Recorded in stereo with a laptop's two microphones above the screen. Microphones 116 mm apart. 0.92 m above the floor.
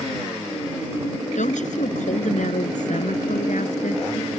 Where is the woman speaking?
80° left; by 4.4 s 75° left (ahead or behind).